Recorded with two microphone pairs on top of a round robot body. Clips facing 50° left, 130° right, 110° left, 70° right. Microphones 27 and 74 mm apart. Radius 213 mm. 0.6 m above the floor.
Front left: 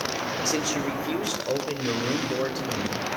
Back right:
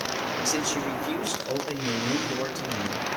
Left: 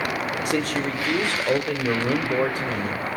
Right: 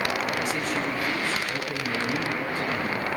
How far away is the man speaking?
About 3 m.